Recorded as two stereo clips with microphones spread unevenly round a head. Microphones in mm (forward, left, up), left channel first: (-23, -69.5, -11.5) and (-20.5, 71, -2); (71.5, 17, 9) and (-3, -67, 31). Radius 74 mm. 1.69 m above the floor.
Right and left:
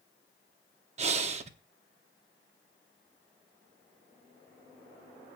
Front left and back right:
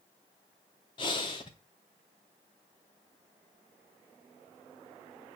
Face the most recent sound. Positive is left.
turn(degrees=115)